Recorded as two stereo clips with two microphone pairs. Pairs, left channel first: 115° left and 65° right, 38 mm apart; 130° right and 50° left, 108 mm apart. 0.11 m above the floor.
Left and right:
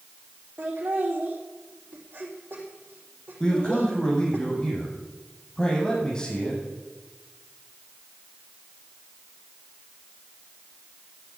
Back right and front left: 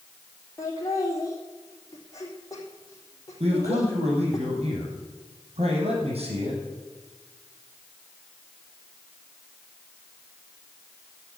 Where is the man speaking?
50° left, 5.5 m.